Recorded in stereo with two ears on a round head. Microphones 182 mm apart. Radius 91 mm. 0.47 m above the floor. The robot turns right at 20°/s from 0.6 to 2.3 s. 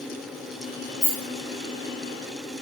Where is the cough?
I don't hear a cough.